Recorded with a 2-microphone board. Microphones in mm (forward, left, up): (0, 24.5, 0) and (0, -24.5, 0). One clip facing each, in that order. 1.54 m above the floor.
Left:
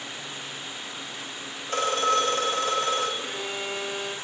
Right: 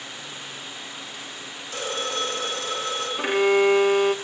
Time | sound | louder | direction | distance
1.7 | a phone ringing | left 6 dB | 45° left (ahead or behind) | 4 m
3.2 | a violin | right 13 dB | 60° right (ahead or behind) | 0.5 m